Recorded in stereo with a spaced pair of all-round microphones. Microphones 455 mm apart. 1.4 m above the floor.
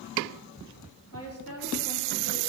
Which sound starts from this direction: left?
A woman speaking, at 1.1 s.